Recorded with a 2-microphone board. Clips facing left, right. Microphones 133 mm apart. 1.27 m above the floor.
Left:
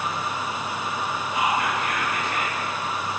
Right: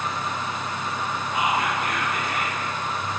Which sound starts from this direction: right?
Whispering, at 1.3 s.